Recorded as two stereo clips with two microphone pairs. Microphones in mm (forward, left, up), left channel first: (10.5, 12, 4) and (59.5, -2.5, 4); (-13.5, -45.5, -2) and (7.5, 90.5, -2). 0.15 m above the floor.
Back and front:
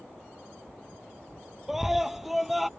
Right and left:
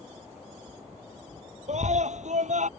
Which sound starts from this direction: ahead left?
A scream, at 1.7 s.